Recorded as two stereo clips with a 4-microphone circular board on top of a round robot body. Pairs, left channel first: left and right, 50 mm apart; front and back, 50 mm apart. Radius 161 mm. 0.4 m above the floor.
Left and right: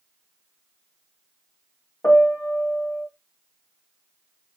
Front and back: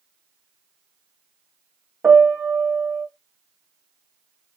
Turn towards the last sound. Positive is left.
turn(degrees=115)